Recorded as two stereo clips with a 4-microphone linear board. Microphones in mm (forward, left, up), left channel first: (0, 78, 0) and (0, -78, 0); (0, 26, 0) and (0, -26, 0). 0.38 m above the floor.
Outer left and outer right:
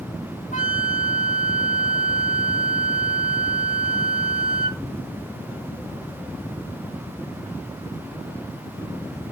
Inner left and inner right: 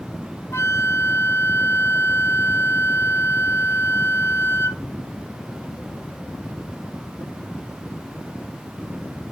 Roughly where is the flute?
Left.